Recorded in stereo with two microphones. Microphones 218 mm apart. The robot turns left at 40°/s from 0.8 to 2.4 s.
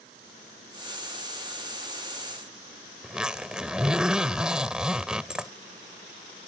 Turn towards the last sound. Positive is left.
turn(degrees=-5)  # may be behind; listen again after turning